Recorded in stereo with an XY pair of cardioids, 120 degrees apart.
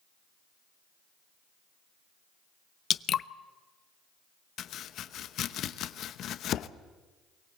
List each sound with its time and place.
2.9 s dripping: 50° left, 0.5 m
4.6 s chopping: 60° left, 0.8 m